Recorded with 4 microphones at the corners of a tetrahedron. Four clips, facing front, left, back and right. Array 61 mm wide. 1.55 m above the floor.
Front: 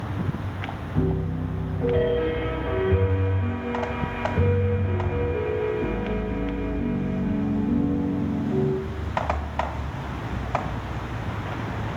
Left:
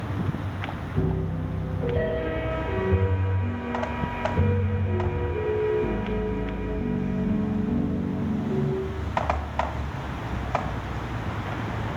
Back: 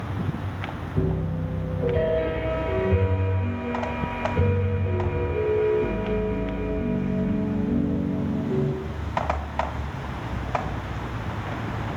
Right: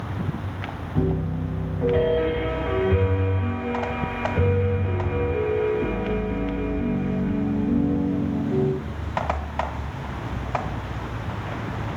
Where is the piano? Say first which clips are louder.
Right 4 dB, front 1 dB; 70° right, 1.8 m.